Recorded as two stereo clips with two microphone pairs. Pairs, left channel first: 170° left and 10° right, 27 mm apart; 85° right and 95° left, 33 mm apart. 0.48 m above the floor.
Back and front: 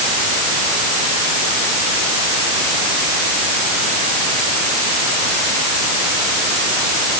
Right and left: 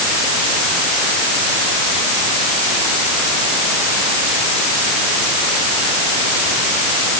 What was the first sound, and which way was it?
Only background noise.